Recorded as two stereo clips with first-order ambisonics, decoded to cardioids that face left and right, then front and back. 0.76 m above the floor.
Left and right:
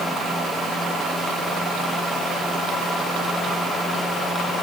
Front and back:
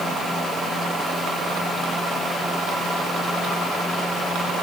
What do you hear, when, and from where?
Only background noise.